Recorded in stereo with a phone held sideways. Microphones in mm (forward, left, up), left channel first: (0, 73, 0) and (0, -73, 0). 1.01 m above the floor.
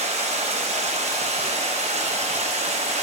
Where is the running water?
50° right (ahead or behind), 1.0 m.